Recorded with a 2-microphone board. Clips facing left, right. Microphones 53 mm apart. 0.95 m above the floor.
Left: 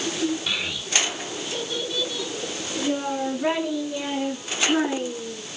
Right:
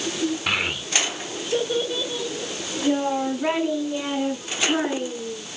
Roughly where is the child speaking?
Right.